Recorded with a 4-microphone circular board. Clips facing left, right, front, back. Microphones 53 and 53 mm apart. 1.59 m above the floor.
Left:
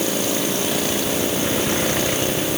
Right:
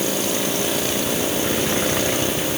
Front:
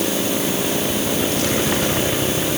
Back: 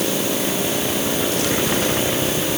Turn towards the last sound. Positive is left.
No sound to turn to.